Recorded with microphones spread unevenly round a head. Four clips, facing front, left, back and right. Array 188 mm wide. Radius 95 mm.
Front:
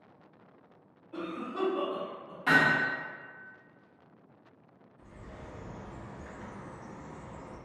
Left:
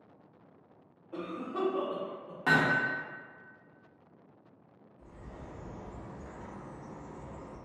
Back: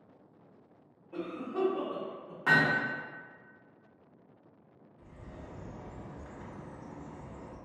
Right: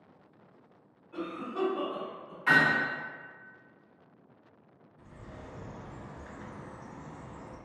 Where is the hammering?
90° left, 1.0 m.